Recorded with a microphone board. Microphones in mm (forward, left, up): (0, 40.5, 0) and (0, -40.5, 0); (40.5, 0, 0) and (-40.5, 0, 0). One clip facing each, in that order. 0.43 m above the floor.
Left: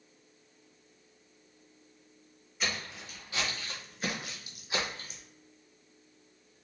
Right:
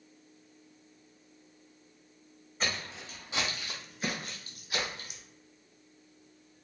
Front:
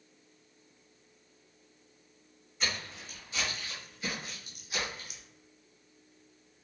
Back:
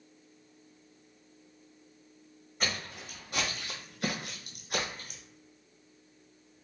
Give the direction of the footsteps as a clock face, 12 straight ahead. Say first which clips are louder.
Right 1 dB, back 1 dB; 5 o'clock.